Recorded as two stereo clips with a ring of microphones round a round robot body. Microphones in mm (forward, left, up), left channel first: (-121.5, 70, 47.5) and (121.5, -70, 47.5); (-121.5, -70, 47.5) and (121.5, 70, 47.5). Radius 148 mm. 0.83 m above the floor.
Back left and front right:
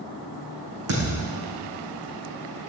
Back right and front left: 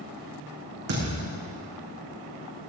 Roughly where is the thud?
Ahead.